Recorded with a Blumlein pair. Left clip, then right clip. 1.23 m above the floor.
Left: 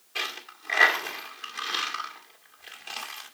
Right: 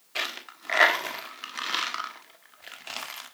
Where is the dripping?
I don't hear dripping.